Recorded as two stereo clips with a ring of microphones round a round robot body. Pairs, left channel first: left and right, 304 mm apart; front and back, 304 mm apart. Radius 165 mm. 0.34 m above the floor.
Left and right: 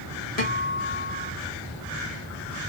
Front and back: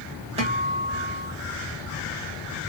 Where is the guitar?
125° left, 1.4 m.